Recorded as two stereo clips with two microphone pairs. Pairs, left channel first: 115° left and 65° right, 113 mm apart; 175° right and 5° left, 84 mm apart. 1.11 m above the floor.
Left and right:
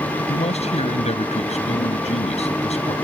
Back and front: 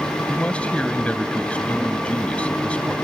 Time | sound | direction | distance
0.3 | a man speaking | 110° left | ?